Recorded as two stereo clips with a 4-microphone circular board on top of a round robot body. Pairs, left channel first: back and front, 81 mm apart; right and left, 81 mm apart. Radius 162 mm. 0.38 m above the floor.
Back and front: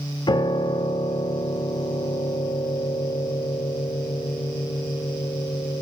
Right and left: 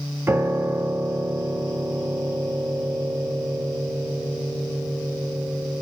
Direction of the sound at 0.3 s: 155° left.